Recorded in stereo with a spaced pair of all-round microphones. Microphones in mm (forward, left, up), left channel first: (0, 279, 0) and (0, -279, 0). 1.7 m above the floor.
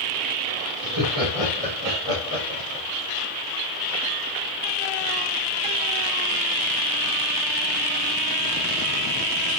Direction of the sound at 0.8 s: 75° left (ahead or behind).